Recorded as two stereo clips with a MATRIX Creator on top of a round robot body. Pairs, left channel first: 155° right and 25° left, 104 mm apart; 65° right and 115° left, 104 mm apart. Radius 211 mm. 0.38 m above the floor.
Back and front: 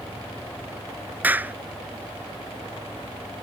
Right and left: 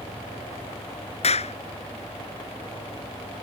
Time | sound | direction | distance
1.2 | a clap | 50° right | ?